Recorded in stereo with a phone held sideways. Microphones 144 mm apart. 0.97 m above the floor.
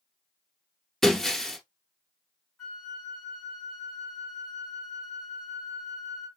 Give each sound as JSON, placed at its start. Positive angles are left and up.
{"t": 1.0, "sound": "breaking glass", "side_deg": 0, "distance_m": 1.3}
{"t": 2.6, "sound": "a flute", "side_deg": 5, "distance_m": 3.0}